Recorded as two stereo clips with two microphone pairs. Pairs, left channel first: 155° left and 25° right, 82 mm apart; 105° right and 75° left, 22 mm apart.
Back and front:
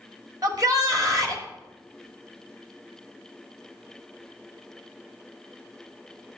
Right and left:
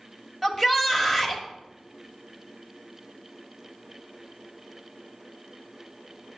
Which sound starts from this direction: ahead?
A shout, at 0.4 s.